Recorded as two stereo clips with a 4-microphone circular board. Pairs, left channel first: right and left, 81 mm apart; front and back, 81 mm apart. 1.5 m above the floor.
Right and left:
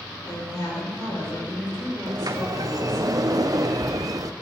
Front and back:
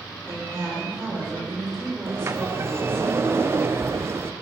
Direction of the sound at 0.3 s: 120° right.